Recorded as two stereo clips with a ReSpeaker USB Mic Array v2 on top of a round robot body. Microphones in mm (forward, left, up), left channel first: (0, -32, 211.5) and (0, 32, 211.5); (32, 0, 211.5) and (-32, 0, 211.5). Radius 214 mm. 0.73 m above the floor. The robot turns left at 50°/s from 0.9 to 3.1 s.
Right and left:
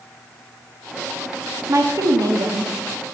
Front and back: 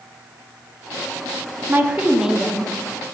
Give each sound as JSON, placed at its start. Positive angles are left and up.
{"t": 1.7, "sound": "a woman speaking", "azimuth_deg": 130, "distance_m": 1.7}